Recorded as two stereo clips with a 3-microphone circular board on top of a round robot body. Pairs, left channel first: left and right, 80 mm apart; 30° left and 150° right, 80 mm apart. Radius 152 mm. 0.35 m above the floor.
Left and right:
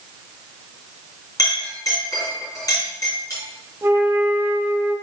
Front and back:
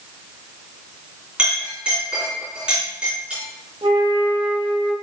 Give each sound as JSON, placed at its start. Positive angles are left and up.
{"t": 1.4, "sound": "a clink", "azimuth_deg": 135, "distance_m": 4.0}
{"t": 3.8, "sound": "a flute", "azimuth_deg": -150, "distance_m": 1.5}